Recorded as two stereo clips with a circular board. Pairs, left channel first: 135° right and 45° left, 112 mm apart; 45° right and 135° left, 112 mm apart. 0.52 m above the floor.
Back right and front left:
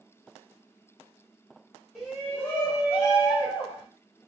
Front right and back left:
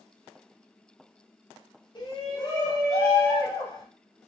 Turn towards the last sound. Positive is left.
turn(degrees=-95)